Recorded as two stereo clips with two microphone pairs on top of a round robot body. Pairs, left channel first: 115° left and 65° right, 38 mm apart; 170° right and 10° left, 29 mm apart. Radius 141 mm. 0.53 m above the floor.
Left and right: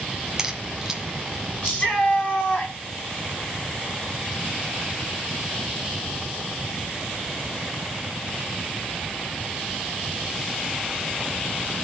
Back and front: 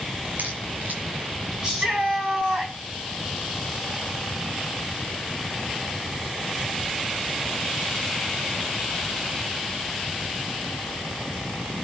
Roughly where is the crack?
Ahead.